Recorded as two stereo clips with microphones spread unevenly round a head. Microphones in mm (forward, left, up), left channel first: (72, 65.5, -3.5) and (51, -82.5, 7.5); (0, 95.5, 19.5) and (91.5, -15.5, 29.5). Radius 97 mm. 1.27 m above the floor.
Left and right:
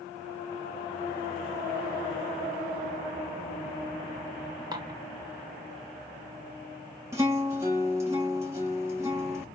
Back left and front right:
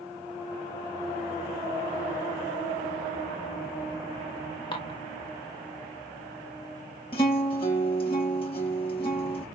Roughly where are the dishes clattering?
Behind.